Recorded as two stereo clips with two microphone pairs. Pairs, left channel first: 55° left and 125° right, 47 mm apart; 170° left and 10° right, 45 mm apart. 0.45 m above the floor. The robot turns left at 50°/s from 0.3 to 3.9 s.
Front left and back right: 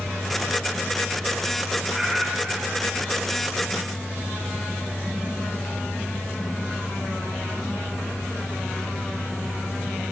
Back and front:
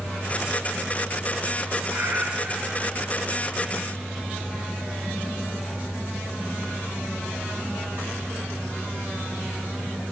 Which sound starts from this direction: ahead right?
A cat meowing, at 1.9 s.